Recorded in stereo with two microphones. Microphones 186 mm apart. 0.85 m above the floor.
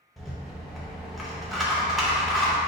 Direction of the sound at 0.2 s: Centre (ahead or behind).